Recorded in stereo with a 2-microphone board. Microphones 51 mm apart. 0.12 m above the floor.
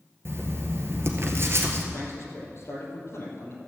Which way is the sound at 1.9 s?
60° left (ahead or behind).